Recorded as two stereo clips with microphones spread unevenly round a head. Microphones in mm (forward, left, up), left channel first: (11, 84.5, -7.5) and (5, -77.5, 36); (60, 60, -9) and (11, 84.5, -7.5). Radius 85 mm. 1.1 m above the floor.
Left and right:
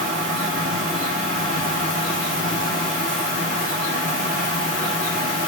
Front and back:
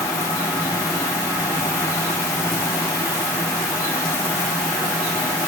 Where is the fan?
50° right, 8 m.